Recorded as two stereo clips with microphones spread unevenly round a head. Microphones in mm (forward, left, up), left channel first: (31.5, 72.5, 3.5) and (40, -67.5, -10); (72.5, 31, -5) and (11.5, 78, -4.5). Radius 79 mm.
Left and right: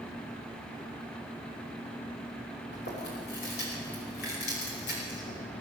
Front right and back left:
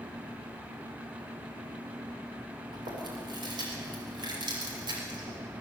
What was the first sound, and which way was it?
Chewing, 125° left.